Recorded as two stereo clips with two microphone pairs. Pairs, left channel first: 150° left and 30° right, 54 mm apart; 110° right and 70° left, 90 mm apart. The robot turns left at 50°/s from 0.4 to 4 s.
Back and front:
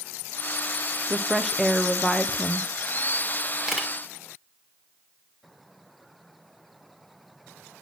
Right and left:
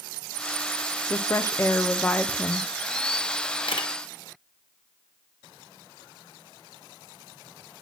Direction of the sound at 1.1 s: 110° right.